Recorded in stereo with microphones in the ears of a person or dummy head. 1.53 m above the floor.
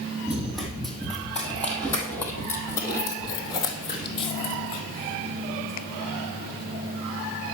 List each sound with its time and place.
0.3 s running footsteps: centre (ahead or behind), 4 m; by 4.8 s 35° left (ahead or behind), 3.5 m